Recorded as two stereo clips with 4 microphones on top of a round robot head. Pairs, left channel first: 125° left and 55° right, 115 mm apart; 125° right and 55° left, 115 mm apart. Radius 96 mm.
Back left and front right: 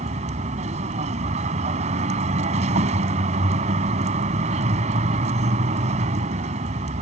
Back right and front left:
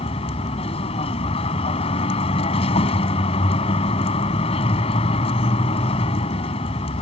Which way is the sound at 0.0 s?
85° right.